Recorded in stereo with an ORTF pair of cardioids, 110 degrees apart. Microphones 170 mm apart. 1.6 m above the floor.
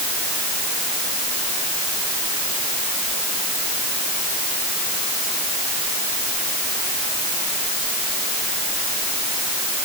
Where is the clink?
No clink in this recording.